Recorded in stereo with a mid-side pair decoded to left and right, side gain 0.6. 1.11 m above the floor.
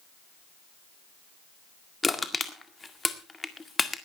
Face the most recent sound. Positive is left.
turn(degrees=15)